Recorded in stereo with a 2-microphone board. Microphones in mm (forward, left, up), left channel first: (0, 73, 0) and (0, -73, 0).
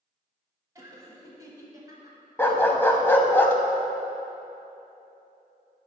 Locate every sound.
0.8 s laughter: 20° right (ahead or behind), 1.2 m
2.4 s a dog barking: 15° left (ahead or behind), 0.6 m